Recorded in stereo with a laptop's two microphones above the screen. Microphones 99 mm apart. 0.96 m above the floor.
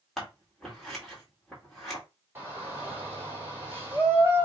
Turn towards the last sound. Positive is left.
turn(degrees=-25)  # may be behind; listen again after turning